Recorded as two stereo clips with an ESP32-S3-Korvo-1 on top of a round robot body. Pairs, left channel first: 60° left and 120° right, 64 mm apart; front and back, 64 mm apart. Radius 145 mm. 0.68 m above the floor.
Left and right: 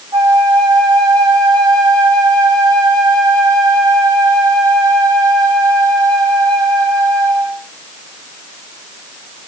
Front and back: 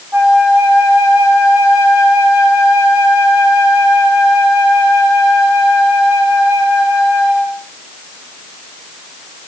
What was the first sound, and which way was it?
A flute, 105° right.